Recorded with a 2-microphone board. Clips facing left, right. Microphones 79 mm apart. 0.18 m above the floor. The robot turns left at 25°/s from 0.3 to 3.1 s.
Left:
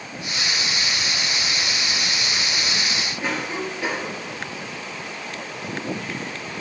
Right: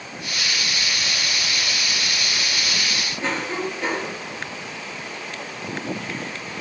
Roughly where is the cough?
Centre.